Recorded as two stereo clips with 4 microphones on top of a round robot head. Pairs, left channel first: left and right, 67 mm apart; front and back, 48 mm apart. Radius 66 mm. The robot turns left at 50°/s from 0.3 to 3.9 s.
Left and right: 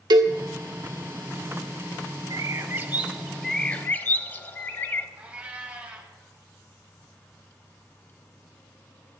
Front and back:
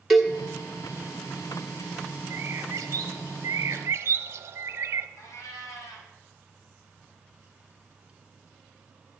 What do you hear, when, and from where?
0.1 s a cowbell: 95° right, 1.4 m
2.3 s a bird: 130° right, 0.7 m; by 5.1 s 150° left, 0.7 m
5.2 s a cat meowing: 20° right, 2 m